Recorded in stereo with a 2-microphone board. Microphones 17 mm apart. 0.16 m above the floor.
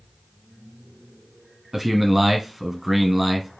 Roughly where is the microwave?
No microwave in this recording.